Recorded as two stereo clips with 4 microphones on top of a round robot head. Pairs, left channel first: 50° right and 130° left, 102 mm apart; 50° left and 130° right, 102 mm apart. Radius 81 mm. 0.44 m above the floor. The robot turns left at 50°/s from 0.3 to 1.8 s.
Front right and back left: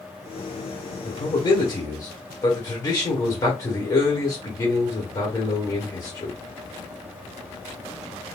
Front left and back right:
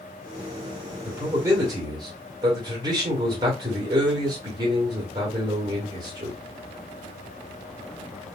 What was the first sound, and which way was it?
A man speaking, 60° right.